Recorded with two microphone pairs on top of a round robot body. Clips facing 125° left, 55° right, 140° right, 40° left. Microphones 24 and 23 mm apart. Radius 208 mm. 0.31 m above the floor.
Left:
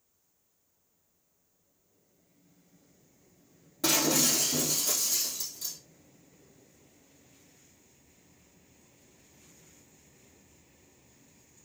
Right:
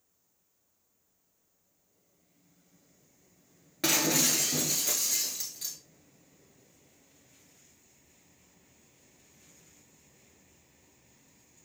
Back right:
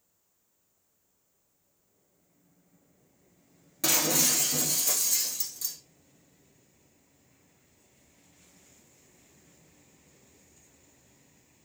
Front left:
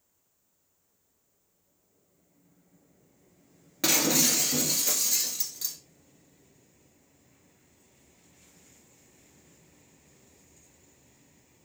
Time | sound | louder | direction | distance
3.8 | breaking glass | even, front left 2 dB | 20° right | 0.9 m